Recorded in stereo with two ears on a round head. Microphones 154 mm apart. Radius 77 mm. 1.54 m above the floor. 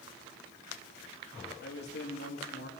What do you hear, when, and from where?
1.6 s a man speaking: 75° left (ahead or behind), 3.5 m